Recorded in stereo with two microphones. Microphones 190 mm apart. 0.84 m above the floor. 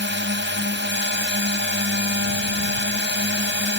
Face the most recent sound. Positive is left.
turn(degrees=-75)  # may be behind; listen again after turning